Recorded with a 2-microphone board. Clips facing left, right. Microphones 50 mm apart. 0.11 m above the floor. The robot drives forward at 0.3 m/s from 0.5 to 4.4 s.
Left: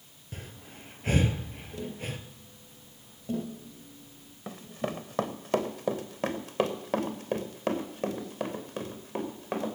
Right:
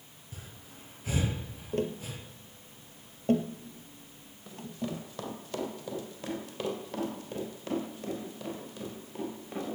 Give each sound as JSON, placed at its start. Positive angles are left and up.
{"t": 0.3, "sound": "breathing", "side_deg": 55, "distance_m": 1.8}
{"t": 1.7, "sound": "tapping", "side_deg": -60, "distance_m": 1.9}
{"t": 4.5, "sound": "running footsteps", "side_deg": 65, "distance_m": 1.9}